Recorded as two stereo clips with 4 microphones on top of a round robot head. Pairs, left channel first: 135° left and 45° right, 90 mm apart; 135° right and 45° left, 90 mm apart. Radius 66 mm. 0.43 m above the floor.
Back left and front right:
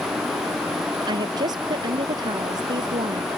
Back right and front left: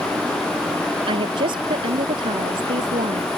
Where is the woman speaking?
5° left.